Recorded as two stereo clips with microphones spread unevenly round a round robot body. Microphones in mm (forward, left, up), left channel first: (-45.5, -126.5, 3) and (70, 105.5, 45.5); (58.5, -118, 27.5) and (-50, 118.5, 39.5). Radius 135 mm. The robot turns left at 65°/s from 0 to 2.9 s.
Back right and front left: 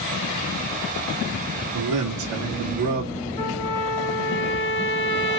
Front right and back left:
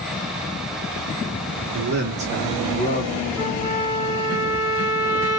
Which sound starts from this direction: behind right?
A trumpet, at 3.4 s.